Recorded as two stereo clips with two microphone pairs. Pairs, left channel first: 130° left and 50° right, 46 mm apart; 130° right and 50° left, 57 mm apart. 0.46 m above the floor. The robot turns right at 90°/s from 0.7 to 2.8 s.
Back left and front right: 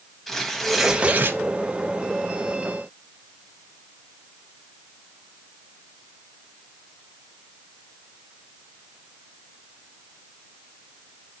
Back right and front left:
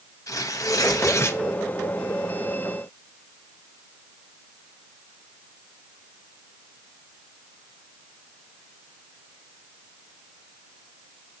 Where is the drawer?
I don't hear a drawer.